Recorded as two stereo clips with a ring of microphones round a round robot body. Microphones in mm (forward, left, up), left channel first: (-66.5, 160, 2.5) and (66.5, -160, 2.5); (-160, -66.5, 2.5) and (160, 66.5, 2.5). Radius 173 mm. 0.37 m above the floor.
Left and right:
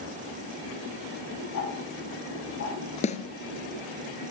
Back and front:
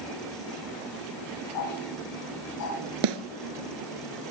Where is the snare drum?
40° left, 1.9 m.